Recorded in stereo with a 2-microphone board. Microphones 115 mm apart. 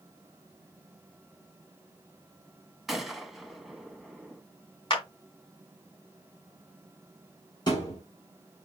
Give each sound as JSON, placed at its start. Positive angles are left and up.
{"t": 2.9, "sound": "a gunshot", "side_deg": 0, "distance_m": 0.8}
{"t": 4.9, "sound": "a clap", "side_deg": 40, "distance_m": 1.9}
{"t": 7.7, "sound": "a thud", "side_deg": 40, "distance_m": 4.0}